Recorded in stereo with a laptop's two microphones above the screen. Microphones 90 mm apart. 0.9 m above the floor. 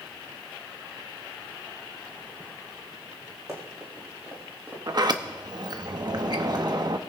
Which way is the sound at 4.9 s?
45° right (ahead or behind).